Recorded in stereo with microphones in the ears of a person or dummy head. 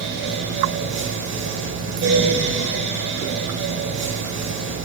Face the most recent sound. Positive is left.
turn(degrees=-65)  # may be behind; listen again after turning